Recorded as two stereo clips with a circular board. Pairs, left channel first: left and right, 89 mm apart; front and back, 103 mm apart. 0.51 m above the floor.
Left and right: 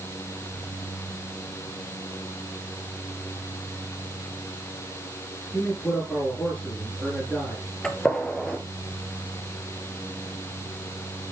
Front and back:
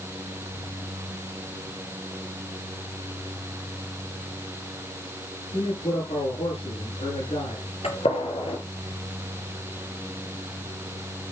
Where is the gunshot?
10° left, 3 m.